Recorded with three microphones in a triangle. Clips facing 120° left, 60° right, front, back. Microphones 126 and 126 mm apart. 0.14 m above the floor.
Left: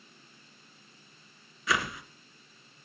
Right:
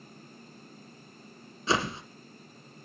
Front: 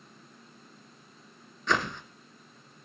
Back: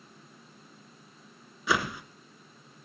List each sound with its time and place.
1.7 s a whoosh: 105° right, 1.6 m